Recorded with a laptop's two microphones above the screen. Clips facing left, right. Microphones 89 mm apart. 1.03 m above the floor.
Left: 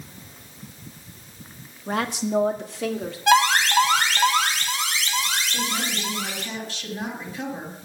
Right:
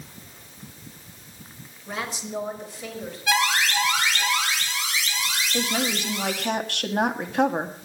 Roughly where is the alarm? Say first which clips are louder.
Left 5 dB; left.